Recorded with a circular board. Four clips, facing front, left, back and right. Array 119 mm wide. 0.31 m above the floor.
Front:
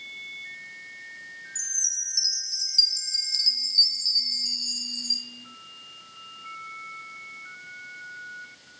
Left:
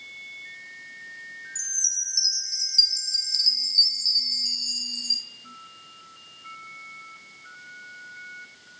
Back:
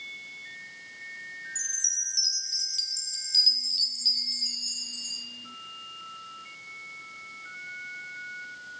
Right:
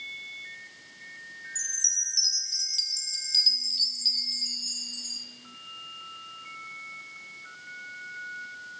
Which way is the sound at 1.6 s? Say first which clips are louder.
Right 1 dB, back 2 dB; 55° left.